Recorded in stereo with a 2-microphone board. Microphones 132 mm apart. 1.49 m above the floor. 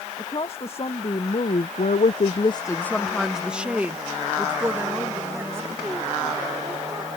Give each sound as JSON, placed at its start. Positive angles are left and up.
{"t": 0.2, "sound": "a woman speaking", "side_deg": 40}